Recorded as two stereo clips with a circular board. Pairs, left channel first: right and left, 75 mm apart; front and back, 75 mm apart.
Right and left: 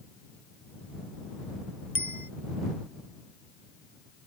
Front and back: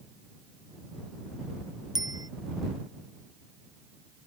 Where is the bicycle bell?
150° left.